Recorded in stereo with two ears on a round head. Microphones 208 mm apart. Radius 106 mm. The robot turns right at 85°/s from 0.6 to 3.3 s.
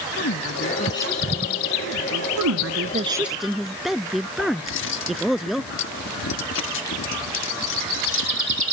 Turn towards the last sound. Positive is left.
turn(degrees=60)  # may be behind; listen again after turning